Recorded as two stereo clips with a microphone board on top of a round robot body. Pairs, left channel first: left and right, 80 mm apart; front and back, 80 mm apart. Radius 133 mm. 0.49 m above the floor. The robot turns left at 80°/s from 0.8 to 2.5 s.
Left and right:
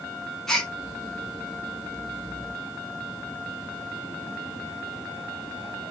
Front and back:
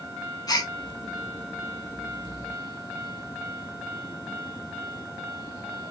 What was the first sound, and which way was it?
A gasp, 5° left.